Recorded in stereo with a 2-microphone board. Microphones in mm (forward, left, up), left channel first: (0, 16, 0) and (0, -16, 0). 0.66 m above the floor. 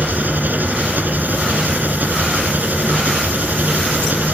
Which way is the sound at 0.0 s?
70° right (ahead or behind).